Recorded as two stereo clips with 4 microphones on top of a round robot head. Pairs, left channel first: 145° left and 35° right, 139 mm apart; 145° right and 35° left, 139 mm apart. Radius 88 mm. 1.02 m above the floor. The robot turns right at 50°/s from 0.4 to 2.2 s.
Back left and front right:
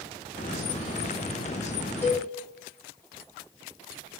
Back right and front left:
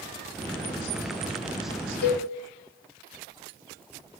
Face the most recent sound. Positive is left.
turn(degrees=-130)